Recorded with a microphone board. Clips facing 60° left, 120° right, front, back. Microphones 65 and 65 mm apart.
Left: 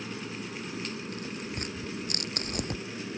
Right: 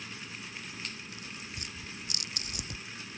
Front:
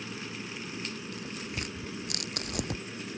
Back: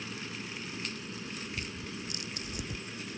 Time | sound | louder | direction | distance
0.0 | an aircraft | left 7 dB, front 1 dB | 75° left | ?
1.1 | tearing paper | left 8 dB, front 2 dB | 20° left | ?